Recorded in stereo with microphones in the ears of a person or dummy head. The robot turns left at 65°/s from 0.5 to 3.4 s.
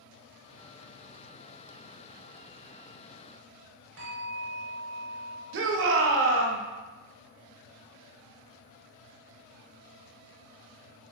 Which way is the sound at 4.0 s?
85° right.